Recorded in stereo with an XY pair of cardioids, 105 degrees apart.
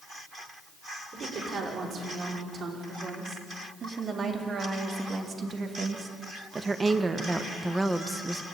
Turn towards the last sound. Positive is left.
turn(degrees=10)